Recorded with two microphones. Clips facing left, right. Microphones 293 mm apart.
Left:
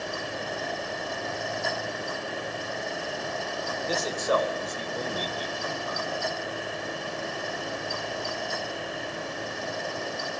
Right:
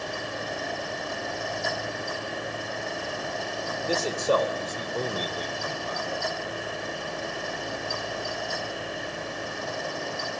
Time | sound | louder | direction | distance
3.9 | a man speaking | right 3 dB | 30° right (ahead or behind) | 2 m